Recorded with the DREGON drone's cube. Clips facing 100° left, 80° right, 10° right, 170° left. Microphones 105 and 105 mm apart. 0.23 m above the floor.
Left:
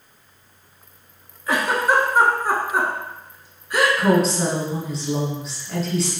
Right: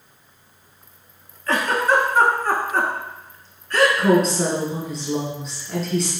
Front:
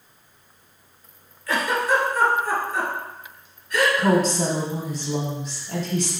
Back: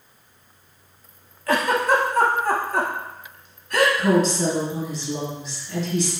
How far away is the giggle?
About 0.8 m.